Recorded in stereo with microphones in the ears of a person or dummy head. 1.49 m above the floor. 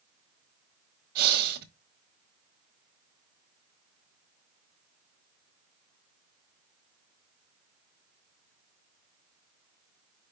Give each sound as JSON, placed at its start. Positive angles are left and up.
{"t": 1.1, "sound": "breathing", "side_deg": -55, "distance_m": 1.3}